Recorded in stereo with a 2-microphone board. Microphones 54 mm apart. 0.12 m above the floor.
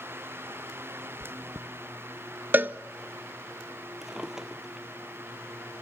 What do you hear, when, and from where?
1.2 s chewing: 50° left (ahead or behind), 0.8 m
2.5 s a cowbell: 35° right (ahead or behind), 0.5 m
4.0 s a drawer: 10° right (ahead or behind), 1.7 m